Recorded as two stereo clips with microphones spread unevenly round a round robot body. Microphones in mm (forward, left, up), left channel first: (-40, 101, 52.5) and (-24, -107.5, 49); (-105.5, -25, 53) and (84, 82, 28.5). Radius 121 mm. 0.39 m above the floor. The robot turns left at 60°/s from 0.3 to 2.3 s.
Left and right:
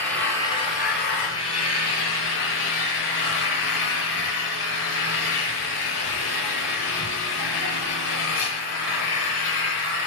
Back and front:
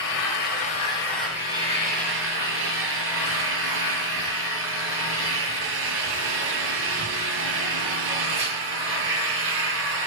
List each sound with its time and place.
0.0 s an engine running: 175° left, 6 m; by 10.1 s 55° left, 6 m